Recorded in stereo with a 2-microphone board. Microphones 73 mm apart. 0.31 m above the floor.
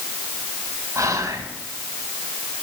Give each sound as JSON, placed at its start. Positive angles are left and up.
{"t": 0.9, "sound": "whispering", "side_deg": -45, "distance_m": 2.5}